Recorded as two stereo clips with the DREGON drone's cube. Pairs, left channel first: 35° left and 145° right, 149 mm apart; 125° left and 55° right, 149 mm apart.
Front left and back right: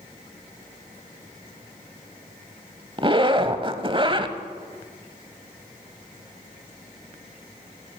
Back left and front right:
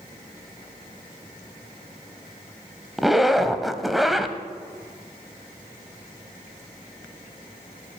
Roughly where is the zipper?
Behind right.